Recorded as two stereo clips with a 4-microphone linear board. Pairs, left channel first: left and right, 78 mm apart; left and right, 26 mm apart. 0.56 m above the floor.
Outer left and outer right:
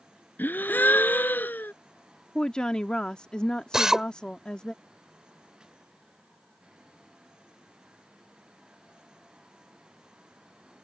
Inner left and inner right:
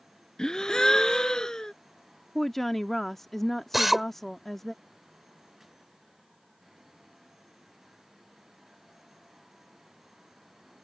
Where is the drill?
5° right (ahead or behind).